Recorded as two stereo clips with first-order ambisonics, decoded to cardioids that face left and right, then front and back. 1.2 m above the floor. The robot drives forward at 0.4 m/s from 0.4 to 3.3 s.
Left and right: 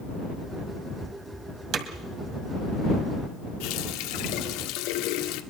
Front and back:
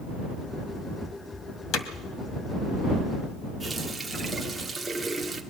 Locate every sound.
1.7 s hammering: 40° right, 1.6 m
3.6 s a running tap: 100° left, 1.7 m